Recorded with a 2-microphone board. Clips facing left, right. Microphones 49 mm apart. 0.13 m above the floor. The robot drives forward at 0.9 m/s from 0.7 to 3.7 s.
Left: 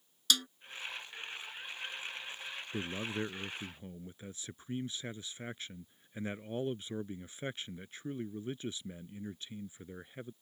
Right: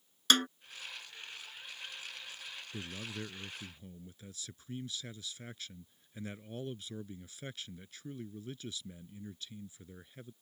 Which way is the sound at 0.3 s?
45° right (ahead or behind).